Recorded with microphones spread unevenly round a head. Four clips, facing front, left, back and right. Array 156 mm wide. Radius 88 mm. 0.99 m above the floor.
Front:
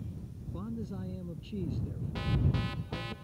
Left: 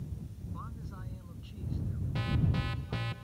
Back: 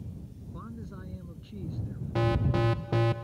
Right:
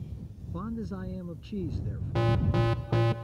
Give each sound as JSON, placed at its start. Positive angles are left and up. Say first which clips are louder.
{"t": 0.5, "sound": "a man speaking", "louder": "right 13 dB, front 5 dB", "azimuth_deg": -70}
{"t": 2.1, "sound": "an alarm", "louder": "right 7 dB, back 7 dB", "azimuth_deg": -140}